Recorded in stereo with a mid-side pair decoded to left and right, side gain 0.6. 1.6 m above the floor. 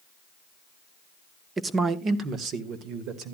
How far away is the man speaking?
About 1.2 m.